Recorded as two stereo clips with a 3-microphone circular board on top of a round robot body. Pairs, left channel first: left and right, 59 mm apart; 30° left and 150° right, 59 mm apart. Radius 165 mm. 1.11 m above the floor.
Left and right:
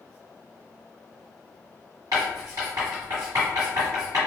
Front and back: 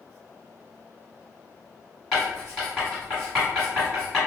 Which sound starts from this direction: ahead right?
Writing, at 2.1 s.